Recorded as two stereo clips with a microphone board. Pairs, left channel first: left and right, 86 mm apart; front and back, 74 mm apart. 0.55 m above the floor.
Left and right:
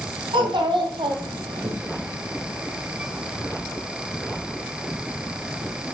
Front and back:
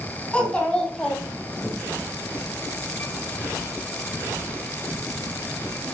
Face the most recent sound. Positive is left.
turn(degrees=-85)